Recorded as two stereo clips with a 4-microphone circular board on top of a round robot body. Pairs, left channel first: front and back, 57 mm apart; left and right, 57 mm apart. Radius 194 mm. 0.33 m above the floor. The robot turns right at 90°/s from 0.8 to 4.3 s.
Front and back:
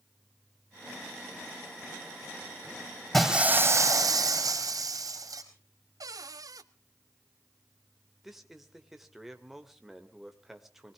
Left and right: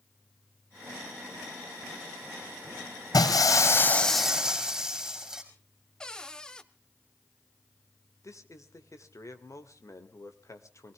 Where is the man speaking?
95° left, 2.5 m.